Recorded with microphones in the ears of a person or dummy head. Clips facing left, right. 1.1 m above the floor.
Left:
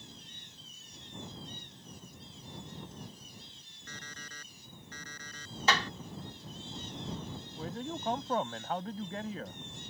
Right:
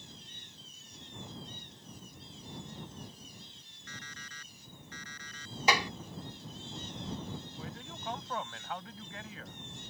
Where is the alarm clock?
35° left (ahead or behind).